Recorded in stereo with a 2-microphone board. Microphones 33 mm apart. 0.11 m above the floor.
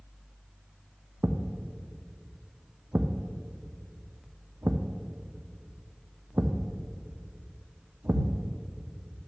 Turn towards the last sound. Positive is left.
turn(degrees=-85)